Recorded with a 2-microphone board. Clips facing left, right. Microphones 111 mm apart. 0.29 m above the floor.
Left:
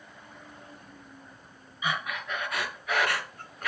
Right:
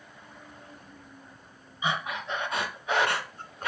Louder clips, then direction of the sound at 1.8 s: Right 2 dB; 25° right (ahead or behind).